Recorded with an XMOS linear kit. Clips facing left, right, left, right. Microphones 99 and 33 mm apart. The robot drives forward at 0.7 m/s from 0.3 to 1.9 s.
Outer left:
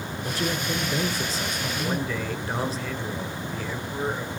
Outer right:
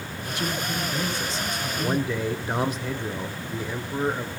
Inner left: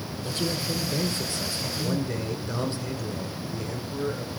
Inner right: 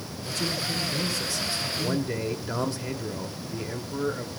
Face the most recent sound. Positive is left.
turn(degrees=-20)  # may be behind; listen again after turning